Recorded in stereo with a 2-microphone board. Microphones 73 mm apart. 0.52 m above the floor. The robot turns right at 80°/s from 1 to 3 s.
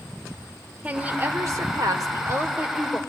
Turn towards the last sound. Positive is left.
turn(degrees=5)